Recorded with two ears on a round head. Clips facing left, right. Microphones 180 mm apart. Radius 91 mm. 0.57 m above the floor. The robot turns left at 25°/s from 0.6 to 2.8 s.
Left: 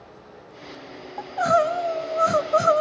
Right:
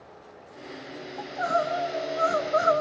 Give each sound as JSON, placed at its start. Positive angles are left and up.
{"t": 1.2, "sound": "crying", "azimuth_deg": 95, "distance_m": 0.8}